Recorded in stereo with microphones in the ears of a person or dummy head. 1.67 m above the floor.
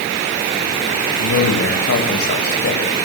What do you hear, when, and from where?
1.2 s a man speaking: 80° left, 7.5 m; by 2.8 s 85° left, 8 m